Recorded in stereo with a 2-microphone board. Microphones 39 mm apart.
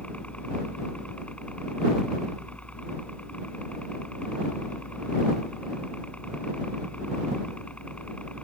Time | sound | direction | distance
0.0 | a helicopter | 35° left (ahead or behind) | ?